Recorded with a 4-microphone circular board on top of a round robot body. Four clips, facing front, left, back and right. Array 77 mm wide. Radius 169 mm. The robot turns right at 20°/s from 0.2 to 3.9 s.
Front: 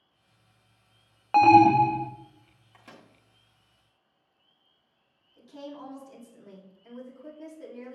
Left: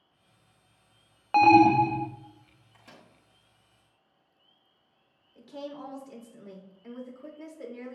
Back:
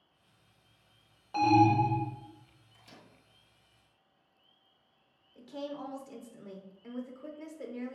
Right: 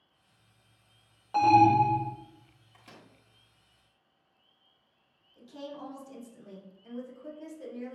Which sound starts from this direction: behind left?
A woman speaking, at 5.3 s.